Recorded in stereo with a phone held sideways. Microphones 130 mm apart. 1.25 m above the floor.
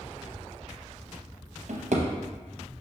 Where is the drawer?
65° right (ahead or behind), 0.7 m.